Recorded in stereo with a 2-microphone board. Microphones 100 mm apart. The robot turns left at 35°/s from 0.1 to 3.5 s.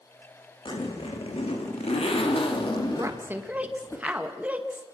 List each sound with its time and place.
0.7 s a zipper: 125° left, 3 m; by 4.0 s 25° left, 3 m
3.0 s a woman speaking: 35° right (ahead or behind), 1.9 m; by 4.9 s 15° right (ahead or behind), 1.9 m